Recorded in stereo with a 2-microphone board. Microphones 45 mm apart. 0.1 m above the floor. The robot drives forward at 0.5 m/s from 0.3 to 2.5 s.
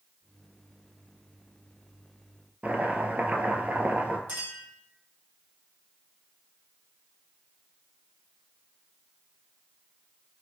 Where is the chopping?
35° right (ahead or behind), 0.7 m.